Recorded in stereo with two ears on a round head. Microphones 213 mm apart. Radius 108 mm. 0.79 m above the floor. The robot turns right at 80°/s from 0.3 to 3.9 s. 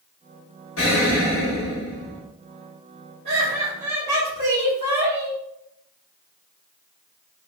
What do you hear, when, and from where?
0.8 s an explosion: 65° left, 1.6 m; by 2.2 s straight behind, 1.6 m
3.2 s laughter: 125° right, 1.4 m; by 5.4 s 75° right, 1.4 m